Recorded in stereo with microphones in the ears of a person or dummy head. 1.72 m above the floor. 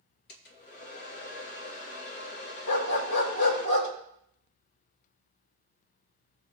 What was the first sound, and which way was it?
A hair dryer, 65° left (ahead or behind).